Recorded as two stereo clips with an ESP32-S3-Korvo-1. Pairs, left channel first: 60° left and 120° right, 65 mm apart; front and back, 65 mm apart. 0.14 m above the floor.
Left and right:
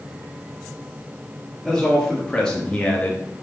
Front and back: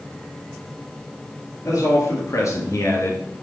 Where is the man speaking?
25° right, 3.5 m; by 3.2 s straight ahead, 2 m.